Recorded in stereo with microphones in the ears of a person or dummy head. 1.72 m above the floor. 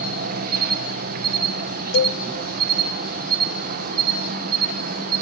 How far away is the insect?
About 1.1 m.